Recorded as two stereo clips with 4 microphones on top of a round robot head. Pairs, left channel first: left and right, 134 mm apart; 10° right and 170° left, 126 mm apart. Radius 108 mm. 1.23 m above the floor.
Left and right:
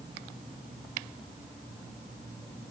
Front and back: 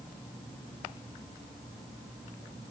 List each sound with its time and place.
Only background noise.